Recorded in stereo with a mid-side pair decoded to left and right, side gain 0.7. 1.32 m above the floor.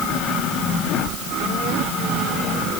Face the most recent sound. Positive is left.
No sound to turn to.